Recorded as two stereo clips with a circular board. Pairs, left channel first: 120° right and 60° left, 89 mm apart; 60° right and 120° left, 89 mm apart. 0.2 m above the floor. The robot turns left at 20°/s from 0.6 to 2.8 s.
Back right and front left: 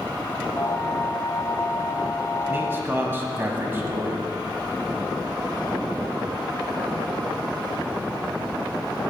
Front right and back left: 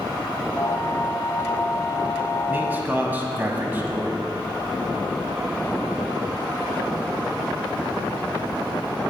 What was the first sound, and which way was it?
A man speaking, 85° left.